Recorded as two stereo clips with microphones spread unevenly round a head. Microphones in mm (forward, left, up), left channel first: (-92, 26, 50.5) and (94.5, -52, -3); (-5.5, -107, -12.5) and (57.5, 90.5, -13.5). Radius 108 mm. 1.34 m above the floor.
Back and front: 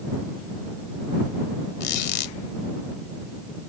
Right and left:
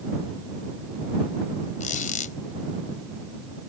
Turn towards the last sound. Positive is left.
turn(degrees=-165)